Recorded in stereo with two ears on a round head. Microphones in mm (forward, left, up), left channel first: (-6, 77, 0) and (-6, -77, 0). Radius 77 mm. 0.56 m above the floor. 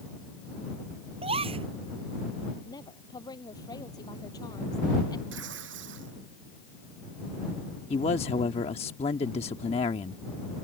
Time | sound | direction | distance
1.2 | a gasp | 35° right (ahead or behind) | ?
2.6 | a woman speaking | 25° left (ahead or behind) | ?
5.3 | tearing paper | 80° right | ?
7.9 | a man speaking | 35° left (ahead or behind) | ?